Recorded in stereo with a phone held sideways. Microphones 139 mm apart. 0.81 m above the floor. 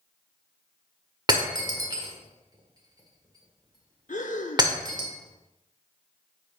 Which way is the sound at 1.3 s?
30° right (ahead or behind).